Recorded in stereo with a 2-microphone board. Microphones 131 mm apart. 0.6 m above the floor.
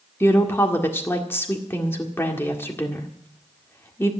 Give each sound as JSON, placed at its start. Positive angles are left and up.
{"t": 0.2, "sound": "a woman speaking", "side_deg": 20, "distance_m": 1.7}